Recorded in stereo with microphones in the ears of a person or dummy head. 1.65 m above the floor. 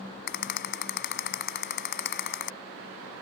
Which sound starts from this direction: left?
A rattle, at 0.3 s.